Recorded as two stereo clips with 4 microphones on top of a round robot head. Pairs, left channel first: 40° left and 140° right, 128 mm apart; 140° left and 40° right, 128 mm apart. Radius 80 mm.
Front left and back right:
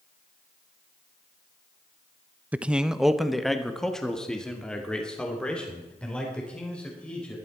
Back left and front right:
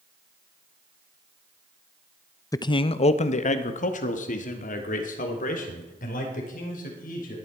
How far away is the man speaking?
About 0.7 m.